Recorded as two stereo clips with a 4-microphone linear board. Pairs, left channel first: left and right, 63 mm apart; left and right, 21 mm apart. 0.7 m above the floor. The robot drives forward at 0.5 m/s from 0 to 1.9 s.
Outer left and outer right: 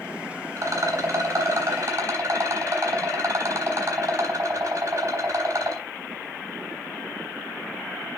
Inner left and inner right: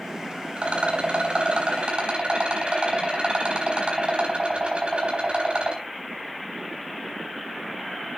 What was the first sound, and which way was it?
A rattle, 55° right (ahead or behind).